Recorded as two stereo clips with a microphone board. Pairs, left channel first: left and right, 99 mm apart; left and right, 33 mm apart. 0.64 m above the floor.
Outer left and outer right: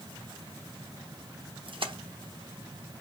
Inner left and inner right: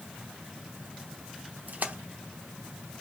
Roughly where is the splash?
Right.